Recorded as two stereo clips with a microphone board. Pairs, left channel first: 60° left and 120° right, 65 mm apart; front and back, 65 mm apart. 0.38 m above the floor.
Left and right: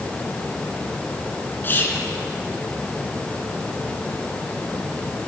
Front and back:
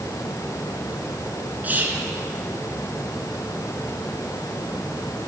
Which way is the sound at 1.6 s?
115° left.